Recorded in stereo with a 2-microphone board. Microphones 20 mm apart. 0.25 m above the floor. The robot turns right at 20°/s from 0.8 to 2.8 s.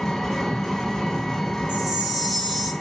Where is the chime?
55° right (ahead or behind), 1.8 m; by 2.7 s 45° right (ahead or behind), 1.8 m.